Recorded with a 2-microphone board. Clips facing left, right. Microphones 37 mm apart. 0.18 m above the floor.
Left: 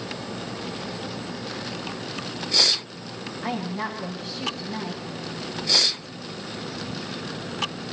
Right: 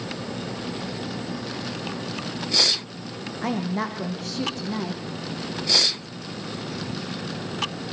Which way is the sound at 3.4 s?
65° right (ahead or behind).